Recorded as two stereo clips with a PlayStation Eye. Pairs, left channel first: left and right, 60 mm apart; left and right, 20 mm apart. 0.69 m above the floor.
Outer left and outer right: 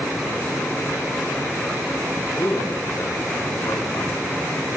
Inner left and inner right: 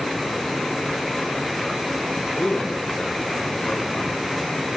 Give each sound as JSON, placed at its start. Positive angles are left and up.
{"t": 2.4, "sound": "a man speaking", "side_deg": 70, "distance_m": 5.5}